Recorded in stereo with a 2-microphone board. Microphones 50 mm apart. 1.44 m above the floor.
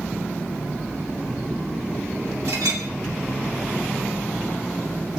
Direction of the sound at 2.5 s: 80° right.